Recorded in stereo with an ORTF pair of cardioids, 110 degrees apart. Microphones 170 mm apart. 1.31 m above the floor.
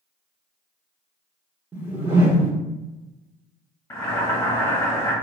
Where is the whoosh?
10° right, 0.9 m.